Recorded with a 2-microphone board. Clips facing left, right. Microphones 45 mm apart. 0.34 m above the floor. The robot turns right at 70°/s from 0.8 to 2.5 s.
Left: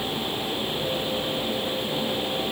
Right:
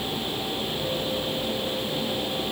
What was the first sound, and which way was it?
Only background noise.